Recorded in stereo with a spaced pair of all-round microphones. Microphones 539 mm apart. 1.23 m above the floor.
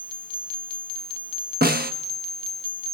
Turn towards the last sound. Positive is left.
turn(degrees=-15)  # may be behind; listen again after turning